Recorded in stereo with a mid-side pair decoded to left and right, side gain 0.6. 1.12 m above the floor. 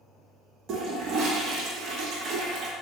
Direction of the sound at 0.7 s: 55° right.